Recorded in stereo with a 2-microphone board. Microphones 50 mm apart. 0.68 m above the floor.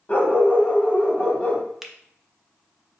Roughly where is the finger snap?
Centre.